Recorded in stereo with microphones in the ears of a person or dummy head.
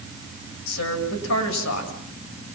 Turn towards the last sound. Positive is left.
turn(degrees=85)